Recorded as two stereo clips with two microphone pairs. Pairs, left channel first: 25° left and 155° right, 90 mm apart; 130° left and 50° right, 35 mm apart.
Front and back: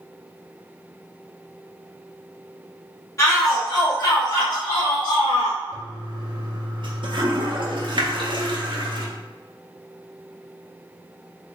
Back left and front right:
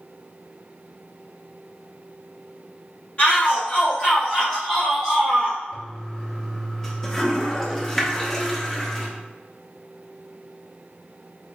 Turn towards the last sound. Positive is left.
turn(degrees=-160)